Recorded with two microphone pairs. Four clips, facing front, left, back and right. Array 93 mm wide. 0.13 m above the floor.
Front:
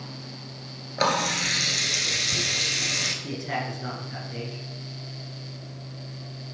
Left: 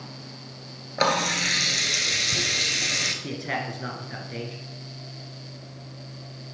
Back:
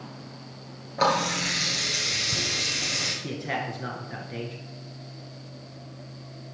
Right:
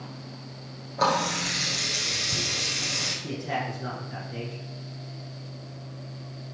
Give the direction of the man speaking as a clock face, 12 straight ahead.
8 o'clock.